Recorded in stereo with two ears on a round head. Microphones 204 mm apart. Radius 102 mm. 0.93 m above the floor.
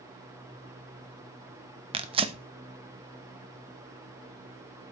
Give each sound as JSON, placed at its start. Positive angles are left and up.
{"t": 1.9, "sound": "tearing paper", "side_deg": -25, "distance_m": 0.9}